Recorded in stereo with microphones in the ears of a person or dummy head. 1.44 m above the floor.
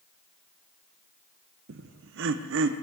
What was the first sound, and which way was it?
Laughter, 60° right (ahead or behind).